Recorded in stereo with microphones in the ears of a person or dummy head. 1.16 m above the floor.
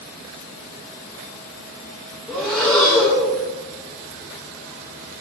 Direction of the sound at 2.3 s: Centre (ahead or behind).